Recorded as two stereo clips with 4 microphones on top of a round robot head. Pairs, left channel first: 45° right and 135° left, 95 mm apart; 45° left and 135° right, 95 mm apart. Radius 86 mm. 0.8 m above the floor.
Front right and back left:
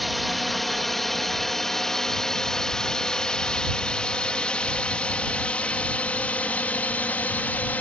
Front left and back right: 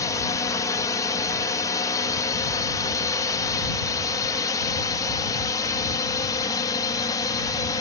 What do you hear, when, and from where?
0.0 s a drone: 40° left; by 7.8 s 20° left